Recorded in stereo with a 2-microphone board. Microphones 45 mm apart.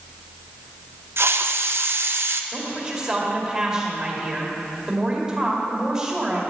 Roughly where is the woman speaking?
Centre.